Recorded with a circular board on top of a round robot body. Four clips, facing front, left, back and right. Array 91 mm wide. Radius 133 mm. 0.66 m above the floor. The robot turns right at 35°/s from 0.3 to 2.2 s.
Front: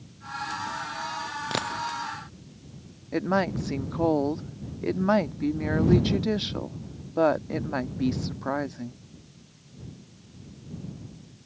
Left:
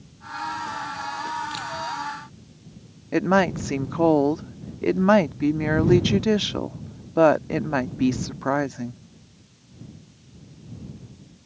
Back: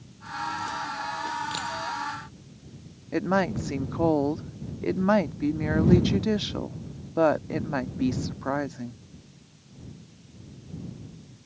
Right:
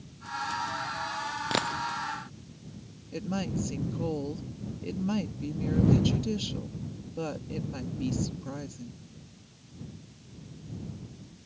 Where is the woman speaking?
90° left.